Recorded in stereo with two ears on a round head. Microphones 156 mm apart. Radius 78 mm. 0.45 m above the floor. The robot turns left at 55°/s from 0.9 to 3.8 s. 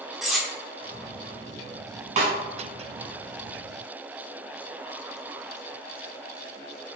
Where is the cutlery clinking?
Centre (ahead or behind), 0.6 m.